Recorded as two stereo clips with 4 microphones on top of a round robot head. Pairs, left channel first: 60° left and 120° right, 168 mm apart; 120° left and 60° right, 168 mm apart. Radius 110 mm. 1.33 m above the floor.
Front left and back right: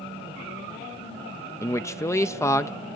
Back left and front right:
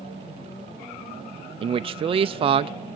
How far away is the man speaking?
About 0.6 m.